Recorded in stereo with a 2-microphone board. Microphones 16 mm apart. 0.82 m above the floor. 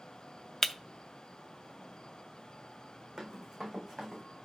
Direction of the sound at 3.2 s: 25° right (ahead or behind).